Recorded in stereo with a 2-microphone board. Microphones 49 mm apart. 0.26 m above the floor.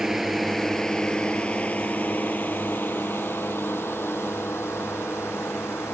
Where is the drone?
10° right (ahead or behind); by 5.9 s 60° left (ahead or behind).